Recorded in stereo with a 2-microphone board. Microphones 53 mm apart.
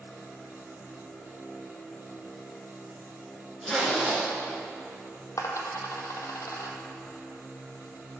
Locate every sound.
3.6 s a zipper: 5° right (ahead or behind), 2.5 m
5.4 s a dropped coin: 80° left, 0.8 m